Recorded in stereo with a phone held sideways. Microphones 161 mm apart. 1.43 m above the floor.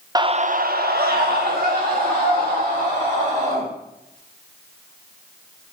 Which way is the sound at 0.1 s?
25° right (ahead or behind).